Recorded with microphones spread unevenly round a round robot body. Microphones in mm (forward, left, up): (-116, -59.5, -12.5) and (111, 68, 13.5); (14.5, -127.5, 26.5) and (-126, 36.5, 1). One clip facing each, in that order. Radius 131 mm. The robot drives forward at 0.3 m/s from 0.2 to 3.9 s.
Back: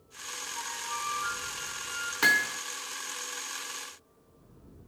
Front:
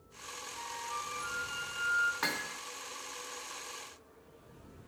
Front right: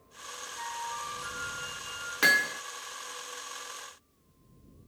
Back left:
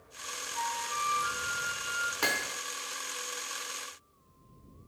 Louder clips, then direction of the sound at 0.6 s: Back 2 dB, back left 3 dB; 130° left.